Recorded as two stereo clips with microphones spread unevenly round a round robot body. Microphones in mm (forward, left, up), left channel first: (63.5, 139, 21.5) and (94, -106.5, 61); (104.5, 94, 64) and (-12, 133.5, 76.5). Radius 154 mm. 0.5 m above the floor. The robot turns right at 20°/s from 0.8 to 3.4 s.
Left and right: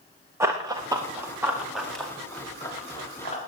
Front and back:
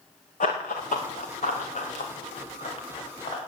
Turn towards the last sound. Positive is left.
turn(degrees=35)